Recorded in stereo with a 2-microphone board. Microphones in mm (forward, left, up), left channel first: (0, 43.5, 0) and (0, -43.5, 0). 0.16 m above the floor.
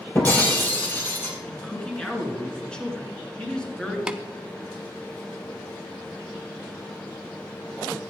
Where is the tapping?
10° right (ahead or behind), 0.6 m.